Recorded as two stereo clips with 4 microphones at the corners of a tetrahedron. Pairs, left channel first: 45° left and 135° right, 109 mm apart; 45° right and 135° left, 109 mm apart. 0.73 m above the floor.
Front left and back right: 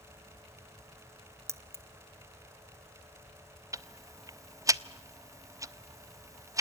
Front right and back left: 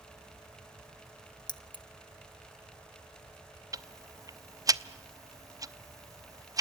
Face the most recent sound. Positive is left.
turn(degrees=175)